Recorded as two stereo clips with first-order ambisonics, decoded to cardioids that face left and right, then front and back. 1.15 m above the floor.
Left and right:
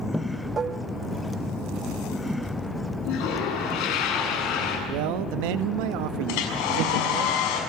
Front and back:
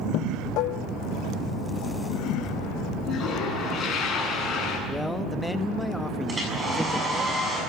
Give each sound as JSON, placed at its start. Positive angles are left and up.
{"t": 0.6, "sound": "dishes clattering", "azimuth_deg": -25, "distance_m": 0.5}
{"t": 3.0, "sound": "a toilet flushing", "azimuth_deg": 65, "distance_m": 8.0}
{"t": 4.9, "sound": "a man speaking", "azimuth_deg": -85, "distance_m": 1.2}
{"t": 6.3, "sound": "a hair dryer", "azimuth_deg": 100, "distance_m": 6.5}